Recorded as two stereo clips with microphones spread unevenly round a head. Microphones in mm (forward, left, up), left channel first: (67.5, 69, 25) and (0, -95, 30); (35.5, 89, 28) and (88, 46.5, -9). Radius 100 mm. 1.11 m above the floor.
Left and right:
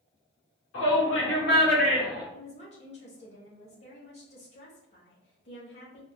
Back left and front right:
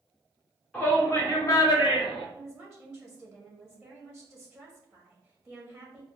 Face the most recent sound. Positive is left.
turn(degrees=45)